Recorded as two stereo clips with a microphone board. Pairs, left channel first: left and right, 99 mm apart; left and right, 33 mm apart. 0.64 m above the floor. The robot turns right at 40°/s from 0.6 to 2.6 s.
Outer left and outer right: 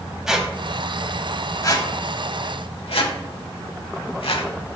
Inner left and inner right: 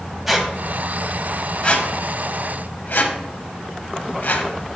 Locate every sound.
0.3 s a squeak: 5° right (ahead or behind), 0.9 m; by 4.5 s 65° left (ahead or behind), 0.9 m